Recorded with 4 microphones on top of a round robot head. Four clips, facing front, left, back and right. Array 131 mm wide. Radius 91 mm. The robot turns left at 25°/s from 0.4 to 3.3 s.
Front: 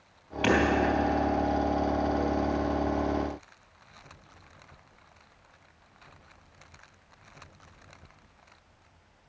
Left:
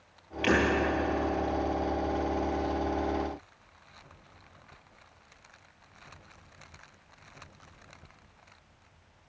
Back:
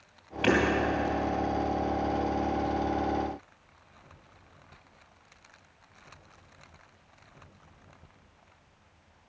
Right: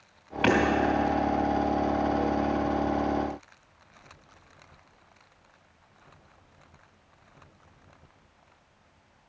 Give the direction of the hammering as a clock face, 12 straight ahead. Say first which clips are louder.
Right 3 dB, even; 3 o'clock.